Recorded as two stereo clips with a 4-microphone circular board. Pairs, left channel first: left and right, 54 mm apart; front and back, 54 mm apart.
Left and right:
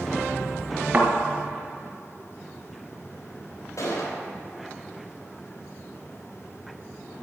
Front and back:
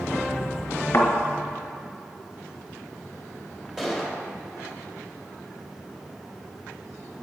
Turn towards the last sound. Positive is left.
turn(degrees=95)